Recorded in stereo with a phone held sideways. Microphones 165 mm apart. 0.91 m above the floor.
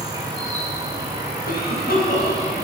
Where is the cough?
65° left (ahead or behind), 4.5 m.